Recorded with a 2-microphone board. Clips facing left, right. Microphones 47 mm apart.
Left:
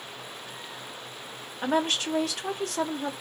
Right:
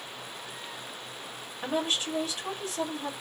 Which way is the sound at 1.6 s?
70° left (ahead or behind).